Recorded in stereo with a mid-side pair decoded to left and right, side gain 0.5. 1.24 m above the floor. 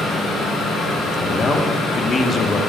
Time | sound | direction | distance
0.0 | a fan | 65° left | 1.6 m
1.2 | a man speaking | 35° left | 1.3 m